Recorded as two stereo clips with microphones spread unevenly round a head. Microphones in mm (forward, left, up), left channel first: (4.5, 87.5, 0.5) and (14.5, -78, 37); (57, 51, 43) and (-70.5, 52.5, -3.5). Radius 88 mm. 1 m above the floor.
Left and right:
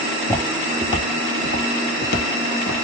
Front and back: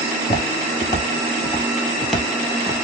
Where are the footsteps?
Straight ahead, 1.4 m; by 2.9 s 85° left, 1.7 m.